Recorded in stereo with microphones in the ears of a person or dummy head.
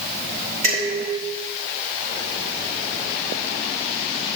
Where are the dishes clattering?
40° right (ahead or behind), 5 m.